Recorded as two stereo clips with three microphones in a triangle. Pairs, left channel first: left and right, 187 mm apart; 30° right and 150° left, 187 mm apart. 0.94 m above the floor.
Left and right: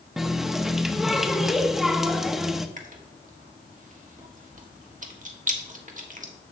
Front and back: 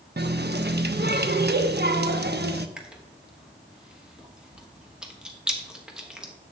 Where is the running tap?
Straight behind, 0.8 m.